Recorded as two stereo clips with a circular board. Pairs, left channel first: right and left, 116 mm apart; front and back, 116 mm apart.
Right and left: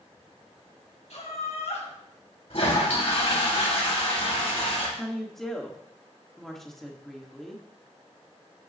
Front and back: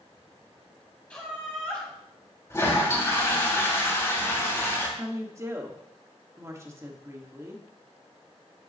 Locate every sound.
1.1 s laughter: 80° right, 4 m
2.5 s a toilet flushing: 65° right, 3 m
5.0 s a woman speaking: 175° right, 1.3 m